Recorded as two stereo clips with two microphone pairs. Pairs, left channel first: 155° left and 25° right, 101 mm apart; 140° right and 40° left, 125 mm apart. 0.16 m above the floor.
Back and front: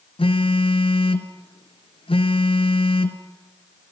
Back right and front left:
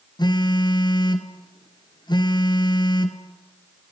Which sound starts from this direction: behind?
A phone buzzing, at 0.2 s.